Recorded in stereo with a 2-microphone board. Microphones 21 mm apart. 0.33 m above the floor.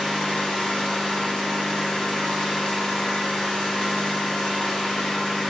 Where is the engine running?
50° left (ahead or behind), 4.5 m.